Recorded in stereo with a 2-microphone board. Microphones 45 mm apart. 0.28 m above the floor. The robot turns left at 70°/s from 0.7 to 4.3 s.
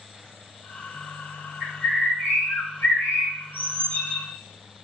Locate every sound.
1.6 s a bird: 170° right, 3 m; by 4.2 s 10° left, 3 m